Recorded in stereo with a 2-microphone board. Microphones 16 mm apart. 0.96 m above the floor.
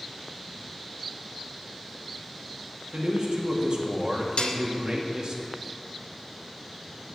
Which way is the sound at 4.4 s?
80° left.